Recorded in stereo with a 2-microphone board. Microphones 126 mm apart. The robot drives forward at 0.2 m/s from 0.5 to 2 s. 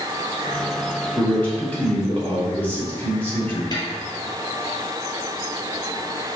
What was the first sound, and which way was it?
A man speaking, 15° left (ahead or behind).